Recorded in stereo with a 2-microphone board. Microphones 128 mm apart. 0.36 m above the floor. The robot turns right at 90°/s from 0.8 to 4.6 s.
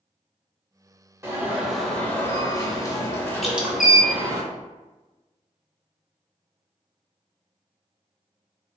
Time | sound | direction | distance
1.2 | an alarm | 20° right (ahead or behind) | 0.6 m
3.4 | dripping | centre (ahead or behind) | 0.6 m